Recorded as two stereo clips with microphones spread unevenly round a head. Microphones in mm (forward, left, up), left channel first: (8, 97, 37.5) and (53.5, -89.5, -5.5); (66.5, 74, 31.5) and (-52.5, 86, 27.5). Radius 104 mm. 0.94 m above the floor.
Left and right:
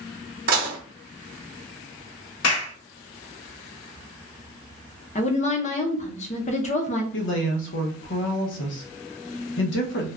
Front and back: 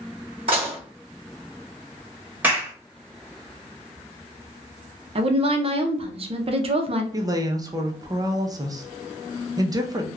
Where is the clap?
100° left, 1.8 m.